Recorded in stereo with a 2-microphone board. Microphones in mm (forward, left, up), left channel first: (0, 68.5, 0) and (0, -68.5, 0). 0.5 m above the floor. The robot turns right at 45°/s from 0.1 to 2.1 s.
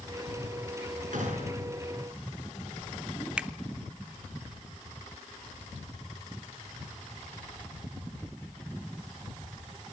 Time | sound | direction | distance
1.1 | a gunshot | 70° right (ahead or behind) | 6.5 m
3.4 | a finger snap | 10° right (ahead or behind) | 0.7 m